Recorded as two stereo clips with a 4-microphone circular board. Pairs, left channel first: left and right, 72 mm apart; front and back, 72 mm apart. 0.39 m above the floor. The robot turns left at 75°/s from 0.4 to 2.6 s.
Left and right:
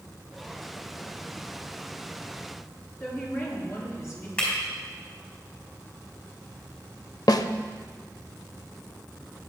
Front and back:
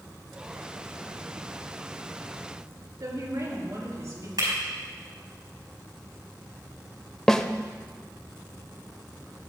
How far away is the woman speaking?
About 5 m.